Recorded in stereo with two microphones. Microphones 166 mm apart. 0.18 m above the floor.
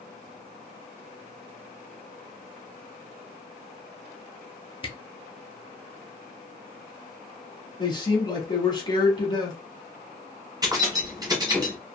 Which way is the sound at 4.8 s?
35° left (ahead or behind).